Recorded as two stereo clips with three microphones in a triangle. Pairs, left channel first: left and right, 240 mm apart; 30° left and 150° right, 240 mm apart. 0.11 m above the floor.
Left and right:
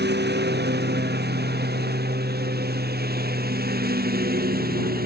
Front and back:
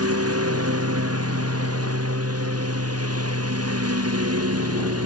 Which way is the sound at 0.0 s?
135° right.